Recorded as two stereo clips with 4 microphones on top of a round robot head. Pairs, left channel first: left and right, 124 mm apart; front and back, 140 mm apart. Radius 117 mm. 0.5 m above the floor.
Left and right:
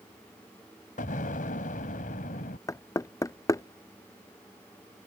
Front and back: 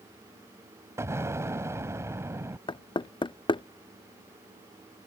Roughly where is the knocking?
Ahead left.